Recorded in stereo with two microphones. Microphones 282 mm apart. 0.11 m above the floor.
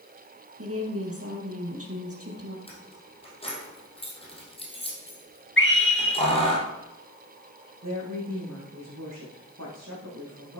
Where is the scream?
45° left (ahead or behind), 1.7 m.